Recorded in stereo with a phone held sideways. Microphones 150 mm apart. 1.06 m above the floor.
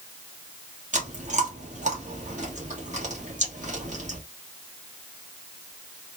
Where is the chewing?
55° right (ahead or behind), 1.4 m.